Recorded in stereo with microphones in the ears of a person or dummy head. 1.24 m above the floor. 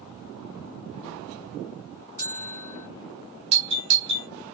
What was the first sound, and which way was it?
A bell, 15° left (ahead or behind).